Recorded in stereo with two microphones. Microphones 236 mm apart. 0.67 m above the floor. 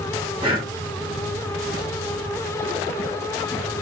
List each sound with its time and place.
0.4 s breathing: 20° right (ahead or behind), 1.1 m